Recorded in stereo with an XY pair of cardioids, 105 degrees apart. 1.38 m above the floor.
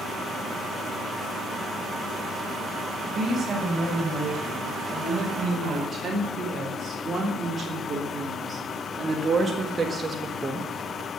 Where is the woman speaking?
30° right, 6.5 m; by 10.8 s 20° right, 1.2 m.